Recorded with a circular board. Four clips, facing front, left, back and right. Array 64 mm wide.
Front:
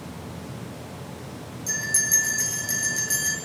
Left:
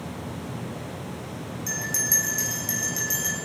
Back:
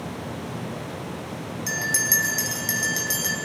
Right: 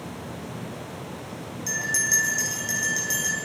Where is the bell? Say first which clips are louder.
Right 5 dB, back 3 dB; 175° right, 6 m.